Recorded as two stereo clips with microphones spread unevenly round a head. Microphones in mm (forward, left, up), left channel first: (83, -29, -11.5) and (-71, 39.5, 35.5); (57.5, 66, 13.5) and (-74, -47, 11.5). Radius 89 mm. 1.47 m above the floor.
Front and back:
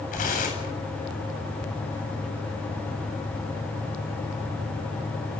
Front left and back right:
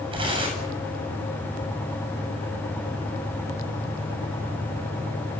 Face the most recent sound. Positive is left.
turn(degrees=-75)